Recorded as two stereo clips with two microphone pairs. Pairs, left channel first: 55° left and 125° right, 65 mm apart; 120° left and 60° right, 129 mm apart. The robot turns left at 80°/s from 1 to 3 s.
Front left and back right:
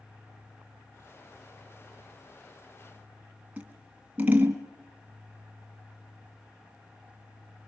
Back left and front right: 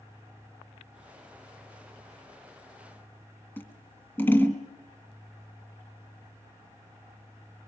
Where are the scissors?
175° right, 2 m.